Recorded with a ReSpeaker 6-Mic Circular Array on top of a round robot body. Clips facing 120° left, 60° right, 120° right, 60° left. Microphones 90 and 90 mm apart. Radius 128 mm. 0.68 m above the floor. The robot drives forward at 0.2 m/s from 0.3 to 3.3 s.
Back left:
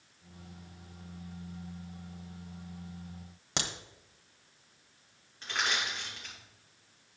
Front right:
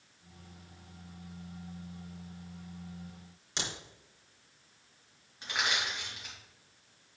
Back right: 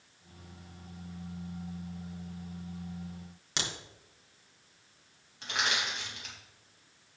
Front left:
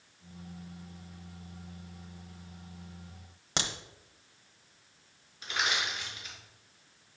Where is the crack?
110° left, 1.2 m.